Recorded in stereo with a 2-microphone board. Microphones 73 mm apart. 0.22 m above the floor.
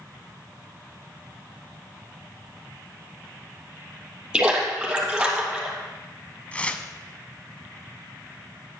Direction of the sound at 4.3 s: 15° right (ahead or behind).